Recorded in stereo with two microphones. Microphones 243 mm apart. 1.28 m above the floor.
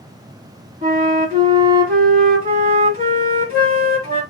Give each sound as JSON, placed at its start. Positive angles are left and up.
{"t": 0.8, "sound": "a flute", "side_deg": -35, "distance_m": 2.0}